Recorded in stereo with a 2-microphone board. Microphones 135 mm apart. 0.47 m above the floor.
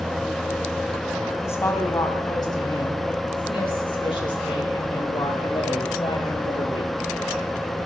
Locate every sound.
1.4 s a woman speaking: 15° left (ahead or behind), 2.5 m; by 6.9 s 45° left (ahead or behind), 9 m